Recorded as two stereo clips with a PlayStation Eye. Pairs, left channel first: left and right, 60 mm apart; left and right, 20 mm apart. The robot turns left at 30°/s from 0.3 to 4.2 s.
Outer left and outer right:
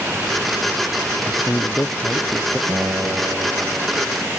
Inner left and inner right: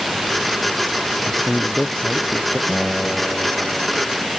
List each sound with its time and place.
1.3 s a man speaking: 50° left; by 2.6 s 10° left
2.7 s a guitar: 110° right; by 4.3 s 155° right